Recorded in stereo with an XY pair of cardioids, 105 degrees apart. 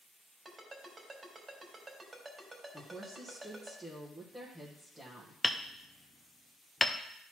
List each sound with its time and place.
0.5 s a ringtone: 30° right, 3 m
2.7 s a woman speaking: 15° right, 1.5 m
5.4 s hammering: 15° left, 0.6 m